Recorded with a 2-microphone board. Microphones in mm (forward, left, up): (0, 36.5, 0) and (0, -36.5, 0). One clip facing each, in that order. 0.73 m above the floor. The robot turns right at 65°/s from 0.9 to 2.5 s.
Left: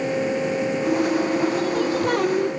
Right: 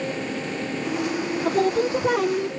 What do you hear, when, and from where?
1.4 s singing: 50° right; by 2.5 s 15° left